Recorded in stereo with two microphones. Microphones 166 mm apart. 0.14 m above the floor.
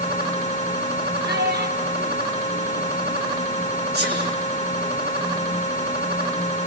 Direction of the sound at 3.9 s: 65° right (ahead or behind).